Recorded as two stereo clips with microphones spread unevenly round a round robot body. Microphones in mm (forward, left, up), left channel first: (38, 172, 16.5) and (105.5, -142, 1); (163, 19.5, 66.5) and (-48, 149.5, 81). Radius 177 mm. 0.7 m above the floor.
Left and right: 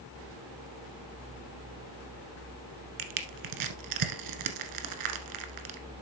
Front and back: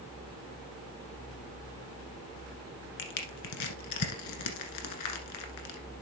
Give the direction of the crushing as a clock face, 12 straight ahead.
2 o'clock.